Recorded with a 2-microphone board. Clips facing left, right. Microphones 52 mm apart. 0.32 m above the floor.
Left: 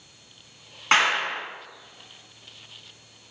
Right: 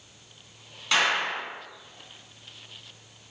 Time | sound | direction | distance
0.9 | a clap | 45° left (ahead or behind) | 3 m